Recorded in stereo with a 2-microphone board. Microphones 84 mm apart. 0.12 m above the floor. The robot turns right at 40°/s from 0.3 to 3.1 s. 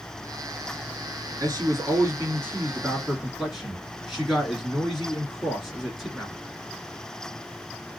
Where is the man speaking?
75° right, 2 m; by 6.3 s 10° right, 2 m.